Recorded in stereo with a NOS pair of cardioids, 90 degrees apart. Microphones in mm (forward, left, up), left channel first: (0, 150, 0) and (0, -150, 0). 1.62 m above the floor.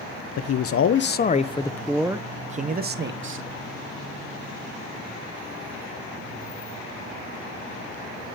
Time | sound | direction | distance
0.4 | a man speaking | 60° left | 1.1 m